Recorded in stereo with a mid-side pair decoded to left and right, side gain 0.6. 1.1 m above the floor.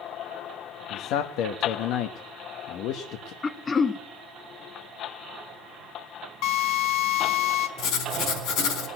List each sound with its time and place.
0.9 s a man speaking: 70° left, 1.1 m
3.4 s throat clearing: 25° left, 0.8 m
6.4 s a drill: 70° left, 4.5 m
7.8 s writing: 65° left, 4 m